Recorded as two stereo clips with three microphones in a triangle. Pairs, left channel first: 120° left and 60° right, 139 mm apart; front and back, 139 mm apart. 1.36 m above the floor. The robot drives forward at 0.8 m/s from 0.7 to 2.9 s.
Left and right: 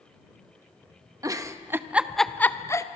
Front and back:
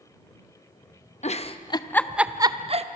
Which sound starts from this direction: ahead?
A giggle, at 1.2 s.